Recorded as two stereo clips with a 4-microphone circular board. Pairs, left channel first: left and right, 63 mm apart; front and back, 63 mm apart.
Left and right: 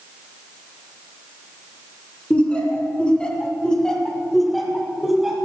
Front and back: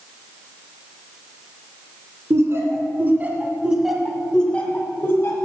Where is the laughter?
155° left, 1.9 m; by 5.4 s 10° right, 1.6 m.